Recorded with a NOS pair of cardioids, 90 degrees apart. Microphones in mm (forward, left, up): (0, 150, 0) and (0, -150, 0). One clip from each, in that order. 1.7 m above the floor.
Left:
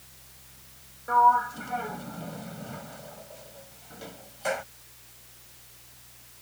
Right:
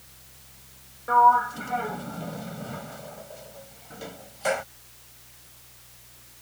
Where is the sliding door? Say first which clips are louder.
Right 3 dB; 20° right.